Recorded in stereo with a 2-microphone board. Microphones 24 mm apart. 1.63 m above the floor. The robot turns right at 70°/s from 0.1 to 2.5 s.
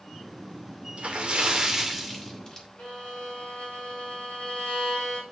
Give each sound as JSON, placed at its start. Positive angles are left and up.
{"t": 1.0, "sound": "a splash", "azimuth_deg": -75, "distance_m": 2.5}
{"t": 2.8, "sound": "a violin", "side_deg": 70, "distance_m": 6.5}